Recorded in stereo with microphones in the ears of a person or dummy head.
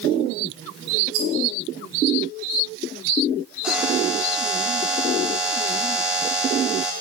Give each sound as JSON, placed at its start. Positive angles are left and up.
{"t": 1.1, "sound": "a rattle", "side_deg": -75, "distance_m": 3.5}
{"t": 3.6, "sound": "a buzzer", "side_deg": -5, "distance_m": 1.7}